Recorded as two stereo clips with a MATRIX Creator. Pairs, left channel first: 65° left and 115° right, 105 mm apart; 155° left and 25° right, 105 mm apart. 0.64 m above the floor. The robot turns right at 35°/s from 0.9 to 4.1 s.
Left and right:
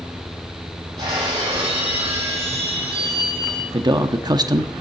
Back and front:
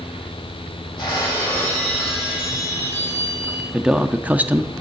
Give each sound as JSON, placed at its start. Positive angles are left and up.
{"t": 1.0, "sound": "breaking glass", "azimuth_deg": -150, "distance_m": 5.5}
{"t": 3.7, "sound": "a man speaking", "azimuth_deg": -105, "distance_m": 0.7}